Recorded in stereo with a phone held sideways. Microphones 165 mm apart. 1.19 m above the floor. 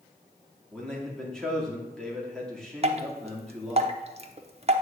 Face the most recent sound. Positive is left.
turn(degrees=-40)  # may be behind; listen again after turning